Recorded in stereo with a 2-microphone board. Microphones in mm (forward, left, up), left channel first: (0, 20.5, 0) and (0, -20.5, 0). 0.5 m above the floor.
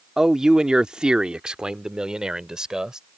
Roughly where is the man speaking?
Centre.